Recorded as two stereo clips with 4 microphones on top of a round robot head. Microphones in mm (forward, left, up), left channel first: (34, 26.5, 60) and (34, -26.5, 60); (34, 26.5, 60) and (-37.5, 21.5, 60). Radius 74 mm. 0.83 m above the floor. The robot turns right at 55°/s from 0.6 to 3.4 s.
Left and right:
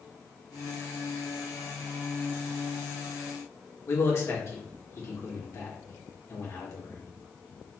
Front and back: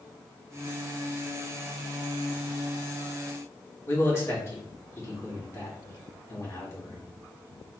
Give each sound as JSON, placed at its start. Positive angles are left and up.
{"t": 3.9, "sound": "a man speaking", "azimuth_deg": 55, "distance_m": 2.0}